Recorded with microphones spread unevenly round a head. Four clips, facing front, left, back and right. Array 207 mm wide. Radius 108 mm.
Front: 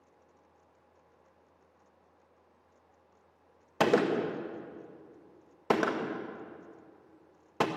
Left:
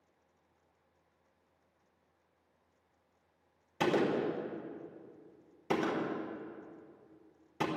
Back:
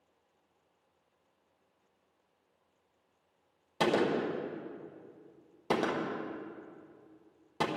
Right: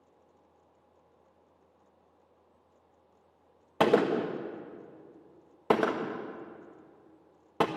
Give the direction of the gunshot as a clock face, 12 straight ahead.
2 o'clock.